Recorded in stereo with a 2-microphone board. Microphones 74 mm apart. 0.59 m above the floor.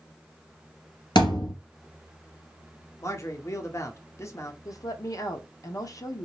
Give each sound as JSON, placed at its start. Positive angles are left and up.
{"t": 1.1, "sound": "a thud", "side_deg": 80, "distance_m": 2.0}
{"t": 3.0, "sound": "a man speaking", "side_deg": 40, "distance_m": 1.0}
{"t": 4.7, "sound": "a woman speaking", "side_deg": 50, "distance_m": 0.9}